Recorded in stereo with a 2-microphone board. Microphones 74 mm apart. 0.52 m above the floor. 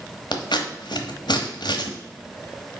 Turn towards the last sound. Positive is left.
turn(degrees=80)